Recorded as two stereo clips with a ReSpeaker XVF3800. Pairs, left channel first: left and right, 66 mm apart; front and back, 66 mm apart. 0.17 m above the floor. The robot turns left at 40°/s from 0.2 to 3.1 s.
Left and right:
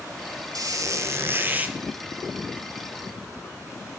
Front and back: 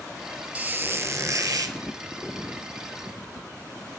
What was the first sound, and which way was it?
A squeak, 110° right.